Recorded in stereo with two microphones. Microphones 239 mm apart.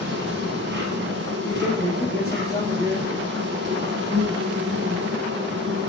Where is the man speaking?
10° left (ahead or behind), 5 m.